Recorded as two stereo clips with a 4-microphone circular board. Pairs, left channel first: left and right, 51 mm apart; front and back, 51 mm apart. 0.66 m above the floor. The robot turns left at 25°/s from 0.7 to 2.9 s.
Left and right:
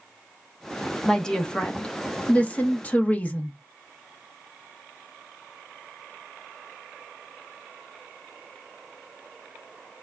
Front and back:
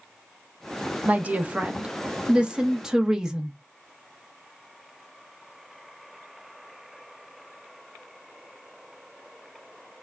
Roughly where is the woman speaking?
Behind.